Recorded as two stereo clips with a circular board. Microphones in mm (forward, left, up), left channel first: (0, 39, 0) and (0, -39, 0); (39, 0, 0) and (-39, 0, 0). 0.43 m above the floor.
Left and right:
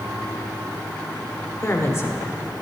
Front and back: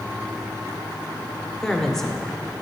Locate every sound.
1.6 s a woman speaking: 80° left, 0.9 m